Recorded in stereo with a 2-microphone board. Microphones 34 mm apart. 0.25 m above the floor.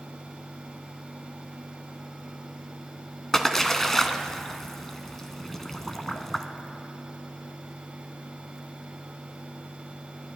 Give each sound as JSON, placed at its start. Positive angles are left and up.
{"t": 3.3, "sound": "a splash", "side_deg": 10, "distance_m": 0.8}